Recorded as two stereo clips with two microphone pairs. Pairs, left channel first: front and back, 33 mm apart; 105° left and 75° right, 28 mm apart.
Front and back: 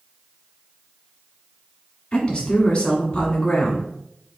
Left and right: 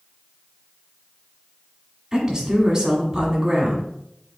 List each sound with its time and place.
2.1 s a woman speaking: 25° right, 1.5 m